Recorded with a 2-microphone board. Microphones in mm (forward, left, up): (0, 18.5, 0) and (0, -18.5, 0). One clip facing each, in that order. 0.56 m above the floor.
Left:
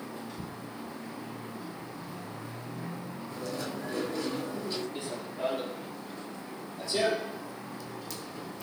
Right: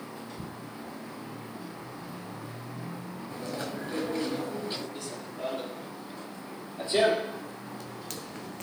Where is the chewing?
40° right (ahead or behind), 7 m.